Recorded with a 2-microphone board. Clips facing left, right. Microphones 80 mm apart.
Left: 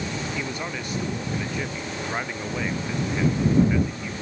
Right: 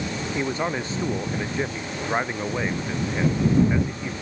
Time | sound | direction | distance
0.3 | a man speaking | 30° right (ahead or behind) | ?